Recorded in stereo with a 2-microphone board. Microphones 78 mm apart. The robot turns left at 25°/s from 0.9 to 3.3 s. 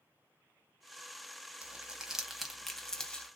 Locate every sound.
1.6 s crumpling: 15° right (ahead or behind), 0.7 m; by 3.3 s 15° left (ahead or behind), 0.7 m